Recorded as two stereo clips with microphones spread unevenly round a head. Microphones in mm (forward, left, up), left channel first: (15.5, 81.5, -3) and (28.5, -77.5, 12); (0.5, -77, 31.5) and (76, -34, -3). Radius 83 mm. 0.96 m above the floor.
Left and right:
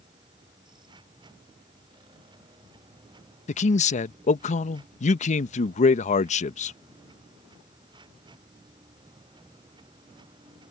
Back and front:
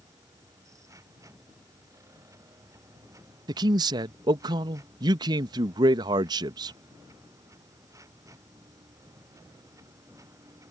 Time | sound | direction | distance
0.0 | a machine running | 25° right | ?
3.5 | a man speaking | 55° left | ?